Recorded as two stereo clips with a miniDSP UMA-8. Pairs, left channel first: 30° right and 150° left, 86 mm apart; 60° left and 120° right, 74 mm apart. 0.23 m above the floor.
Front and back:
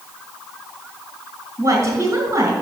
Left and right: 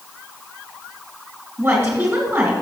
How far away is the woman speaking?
About 2.5 m.